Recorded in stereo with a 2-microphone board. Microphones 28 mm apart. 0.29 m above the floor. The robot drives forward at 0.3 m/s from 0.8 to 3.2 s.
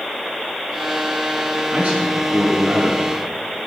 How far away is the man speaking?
About 3 m.